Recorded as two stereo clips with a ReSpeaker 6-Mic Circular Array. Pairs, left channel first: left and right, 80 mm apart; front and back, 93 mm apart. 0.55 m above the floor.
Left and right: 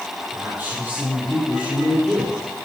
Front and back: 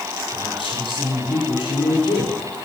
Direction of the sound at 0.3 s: 20° right.